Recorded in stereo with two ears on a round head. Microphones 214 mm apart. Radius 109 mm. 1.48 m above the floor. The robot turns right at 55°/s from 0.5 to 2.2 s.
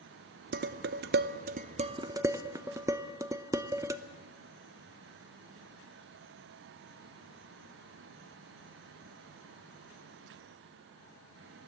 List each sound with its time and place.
0.5 s dishes clattering: 40° right (ahead or behind), 0.7 m; by 4.0 s 15° right (ahead or behind), 0.7 m